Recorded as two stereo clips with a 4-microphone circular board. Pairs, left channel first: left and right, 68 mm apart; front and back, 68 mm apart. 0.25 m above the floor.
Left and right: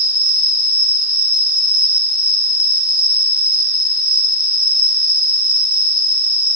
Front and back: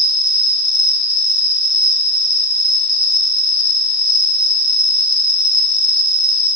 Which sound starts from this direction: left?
An insect, at 0.0 s.